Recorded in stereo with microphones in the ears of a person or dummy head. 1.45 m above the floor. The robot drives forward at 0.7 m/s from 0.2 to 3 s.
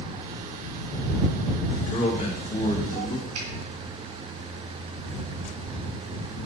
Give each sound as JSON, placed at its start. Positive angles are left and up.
{"t": 1.9, "sound": "a man speaking", "side_deg": 40, "distance_m": 2.0}
{"t": 3.4, "sound": "a finger snap", "side_deg": -75, "distance_m": 3.5}